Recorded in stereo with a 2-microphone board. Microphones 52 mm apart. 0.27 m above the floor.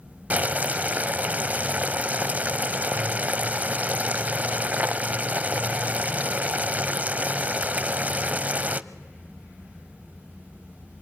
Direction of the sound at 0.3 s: 30° right (ahead or behind).